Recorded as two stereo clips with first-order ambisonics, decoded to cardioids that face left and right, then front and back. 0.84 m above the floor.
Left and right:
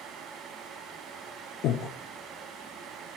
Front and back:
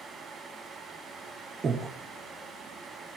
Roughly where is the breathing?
Behind left.